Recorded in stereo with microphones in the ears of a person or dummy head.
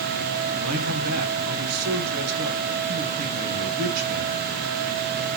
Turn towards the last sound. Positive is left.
turn(degrees=-80)